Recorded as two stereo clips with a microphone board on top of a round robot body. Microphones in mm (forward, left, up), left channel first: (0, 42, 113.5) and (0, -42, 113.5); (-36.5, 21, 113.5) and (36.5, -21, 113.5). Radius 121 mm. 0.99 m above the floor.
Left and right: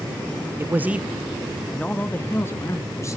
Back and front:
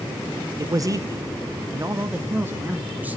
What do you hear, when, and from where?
0.6 s a man speaking: 45° right, 1.0 m; by 3.2 s 40° left, 1.8 m